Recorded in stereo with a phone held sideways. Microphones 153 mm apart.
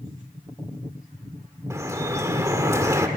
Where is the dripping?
20° right (ahead or behind), 1.5 m.